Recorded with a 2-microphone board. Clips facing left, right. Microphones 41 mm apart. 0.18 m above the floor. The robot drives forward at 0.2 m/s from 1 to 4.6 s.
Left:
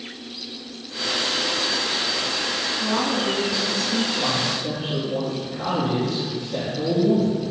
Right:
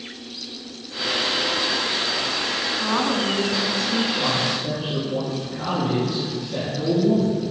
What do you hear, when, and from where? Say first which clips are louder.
2.8 s a woman speaking: right 1 dB; 35° right (ahead or behind), 1.2 m
4.2 s a man speaking: right 1 dB; 10° right (ahead or behind), 3 m